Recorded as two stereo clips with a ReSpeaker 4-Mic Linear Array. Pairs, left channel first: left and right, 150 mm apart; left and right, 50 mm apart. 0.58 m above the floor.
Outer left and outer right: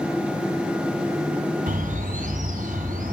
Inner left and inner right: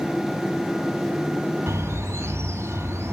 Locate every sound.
1.7 s a bird: 70° right (ahead or behind), 3 m